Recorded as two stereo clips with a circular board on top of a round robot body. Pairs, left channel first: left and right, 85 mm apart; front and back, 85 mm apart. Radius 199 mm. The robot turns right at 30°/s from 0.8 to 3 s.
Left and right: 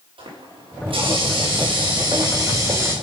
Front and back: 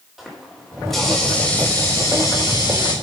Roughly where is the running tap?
Right.